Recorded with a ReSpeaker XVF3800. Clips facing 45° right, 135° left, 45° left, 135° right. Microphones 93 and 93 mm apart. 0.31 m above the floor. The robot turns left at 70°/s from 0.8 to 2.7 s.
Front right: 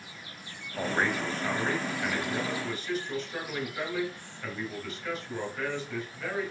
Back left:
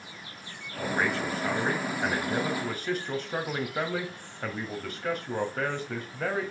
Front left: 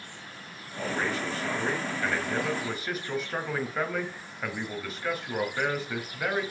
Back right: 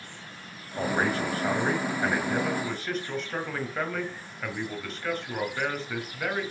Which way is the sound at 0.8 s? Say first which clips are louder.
Even, back right 4 dB; 100° right.